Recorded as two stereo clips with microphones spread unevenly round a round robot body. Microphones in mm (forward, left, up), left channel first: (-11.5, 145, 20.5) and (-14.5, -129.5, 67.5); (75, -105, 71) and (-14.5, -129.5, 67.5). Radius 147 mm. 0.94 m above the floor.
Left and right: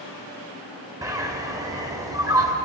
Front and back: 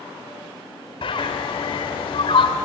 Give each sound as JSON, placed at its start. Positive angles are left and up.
{"t": 1.0, "sound": "a bird", "azimuth_deg": -15, "distance_m": 1.8}